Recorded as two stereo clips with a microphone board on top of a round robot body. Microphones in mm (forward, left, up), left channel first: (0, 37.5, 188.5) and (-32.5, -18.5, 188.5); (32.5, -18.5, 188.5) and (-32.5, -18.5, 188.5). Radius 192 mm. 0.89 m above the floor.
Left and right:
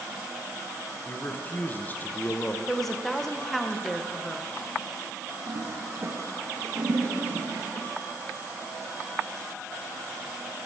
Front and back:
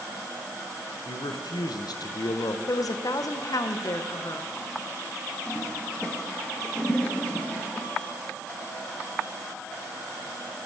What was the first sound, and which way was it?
A man speaking, straight ahead.